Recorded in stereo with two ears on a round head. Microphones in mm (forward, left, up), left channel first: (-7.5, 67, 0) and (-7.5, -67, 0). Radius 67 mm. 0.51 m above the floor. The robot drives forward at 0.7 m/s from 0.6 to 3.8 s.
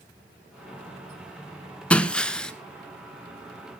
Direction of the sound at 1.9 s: 10° left (ahead or behind).